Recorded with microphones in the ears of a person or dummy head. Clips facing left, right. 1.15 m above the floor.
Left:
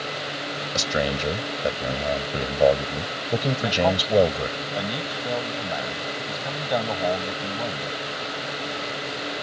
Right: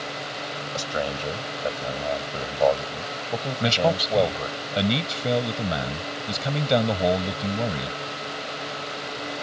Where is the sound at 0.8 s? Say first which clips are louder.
Left 3 dB; 30° left (ahead or behind).